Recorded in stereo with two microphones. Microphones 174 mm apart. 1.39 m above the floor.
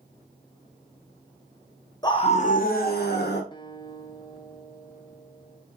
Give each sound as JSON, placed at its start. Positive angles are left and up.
{"t": 2.0, "sound": "a scream", "side_deg": 20, "distance_m": 0.7}
{"t": 3.5, "sound": "a guitar", "side_deg": 25, "distance_m": 0.6}